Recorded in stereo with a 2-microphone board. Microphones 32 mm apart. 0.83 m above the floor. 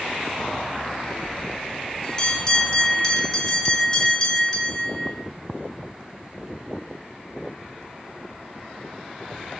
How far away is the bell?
About 1.1 m.